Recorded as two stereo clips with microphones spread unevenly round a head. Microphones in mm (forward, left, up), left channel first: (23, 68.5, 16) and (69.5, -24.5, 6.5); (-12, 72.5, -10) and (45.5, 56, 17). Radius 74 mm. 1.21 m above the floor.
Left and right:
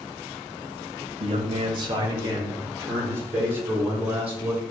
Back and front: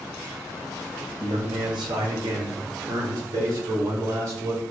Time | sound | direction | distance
1.2 | a man speaking | 45° right | 1.4 m